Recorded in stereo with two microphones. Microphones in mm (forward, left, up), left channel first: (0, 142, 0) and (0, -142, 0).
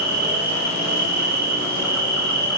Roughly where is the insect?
Right.